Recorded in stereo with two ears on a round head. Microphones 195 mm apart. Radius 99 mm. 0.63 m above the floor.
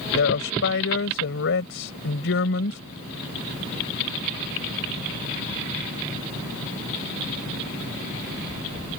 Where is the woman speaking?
65° left (ahead or behind).